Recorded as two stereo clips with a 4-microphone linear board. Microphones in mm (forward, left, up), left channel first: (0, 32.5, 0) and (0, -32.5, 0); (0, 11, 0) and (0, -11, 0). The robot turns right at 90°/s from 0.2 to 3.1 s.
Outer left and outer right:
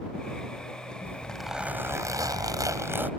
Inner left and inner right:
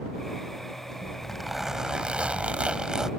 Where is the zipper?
145° left; by 3.1 s 30° right.